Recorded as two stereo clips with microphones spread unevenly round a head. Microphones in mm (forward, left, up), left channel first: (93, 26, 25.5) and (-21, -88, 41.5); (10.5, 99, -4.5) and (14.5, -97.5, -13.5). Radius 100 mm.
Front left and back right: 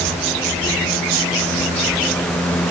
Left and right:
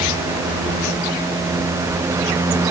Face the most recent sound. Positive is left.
No sound to turn to.